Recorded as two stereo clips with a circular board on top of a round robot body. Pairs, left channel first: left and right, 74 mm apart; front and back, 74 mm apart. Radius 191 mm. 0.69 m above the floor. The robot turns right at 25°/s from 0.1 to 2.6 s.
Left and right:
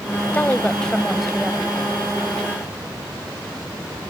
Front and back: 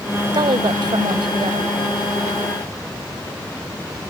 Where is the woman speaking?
160° left; by 1.8 s 165° right.